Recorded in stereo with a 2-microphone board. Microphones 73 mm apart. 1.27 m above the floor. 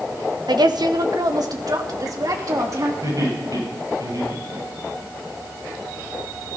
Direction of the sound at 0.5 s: 75° right (ahead or behind).